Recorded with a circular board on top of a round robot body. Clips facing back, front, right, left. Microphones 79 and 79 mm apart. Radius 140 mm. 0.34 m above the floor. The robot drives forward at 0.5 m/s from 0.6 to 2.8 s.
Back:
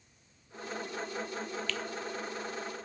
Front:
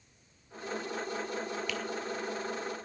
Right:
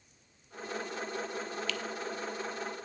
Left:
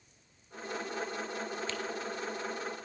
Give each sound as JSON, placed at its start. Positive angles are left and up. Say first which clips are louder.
{"t": 1.7, "sound": "a finger snap", "louder": "front 1 dB, right 1 dB", "azimuth_deg": 65, "distance_m": 1.4}